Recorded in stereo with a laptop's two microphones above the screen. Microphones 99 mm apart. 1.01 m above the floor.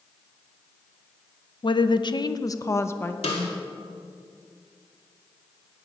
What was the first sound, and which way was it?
A woman speaking, 55° left (ahead or behind).